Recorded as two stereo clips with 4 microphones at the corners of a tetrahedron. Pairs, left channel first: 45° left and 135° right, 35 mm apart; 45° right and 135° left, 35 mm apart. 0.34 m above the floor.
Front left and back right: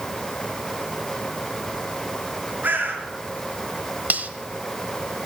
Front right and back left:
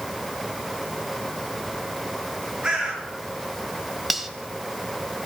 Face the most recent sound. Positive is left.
turn(degrees=-140)